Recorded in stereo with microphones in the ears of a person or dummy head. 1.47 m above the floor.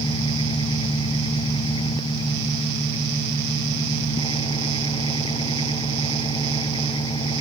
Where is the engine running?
25° left (ahead or behind).